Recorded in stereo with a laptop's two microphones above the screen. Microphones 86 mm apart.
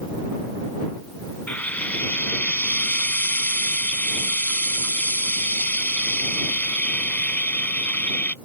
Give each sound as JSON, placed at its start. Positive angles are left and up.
{"t": 1.5, "sound": "frying", "side_deg": 20}